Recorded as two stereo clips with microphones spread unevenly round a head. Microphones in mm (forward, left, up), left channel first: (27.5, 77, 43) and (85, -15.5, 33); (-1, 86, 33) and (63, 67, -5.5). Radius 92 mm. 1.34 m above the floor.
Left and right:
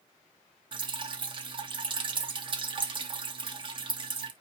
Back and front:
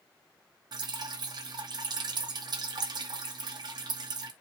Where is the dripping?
15° right, 1.7 m.